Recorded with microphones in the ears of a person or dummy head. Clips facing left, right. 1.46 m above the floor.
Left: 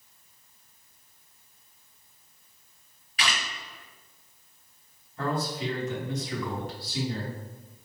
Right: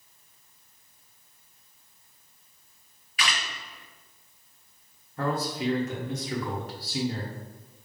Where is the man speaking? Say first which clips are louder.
Right 1 dB; 50° right (ahead or behind), 1.1 m.